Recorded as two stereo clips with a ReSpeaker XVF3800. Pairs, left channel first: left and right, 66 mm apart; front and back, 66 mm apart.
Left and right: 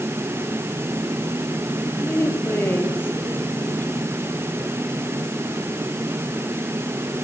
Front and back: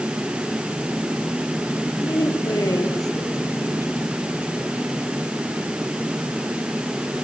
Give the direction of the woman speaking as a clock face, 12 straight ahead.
11 o'clock.